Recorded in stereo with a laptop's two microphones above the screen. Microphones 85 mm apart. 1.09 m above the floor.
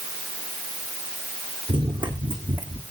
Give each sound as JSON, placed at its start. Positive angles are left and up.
{"t": 1.7, "sound": "running footsteps", "side_deg": -65, "distance_m": 3.5}